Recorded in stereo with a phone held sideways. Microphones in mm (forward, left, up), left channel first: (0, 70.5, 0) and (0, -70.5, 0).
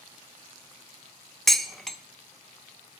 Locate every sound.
1.5 s dishes clattering: centre (ahead or behind), 0.8 m